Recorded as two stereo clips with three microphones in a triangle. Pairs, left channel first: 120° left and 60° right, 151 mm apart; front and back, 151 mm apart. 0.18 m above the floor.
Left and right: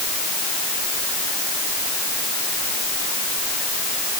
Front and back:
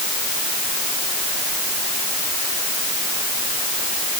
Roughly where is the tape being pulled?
No tape being pulled in this recording.